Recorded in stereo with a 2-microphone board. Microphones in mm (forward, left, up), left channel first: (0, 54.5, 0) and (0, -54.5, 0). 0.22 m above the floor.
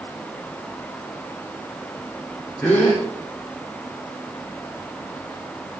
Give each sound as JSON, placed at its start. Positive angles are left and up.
{"t": 2.6, "sound": "a gasp", "side_deg": 15, "distance_m": 10.0}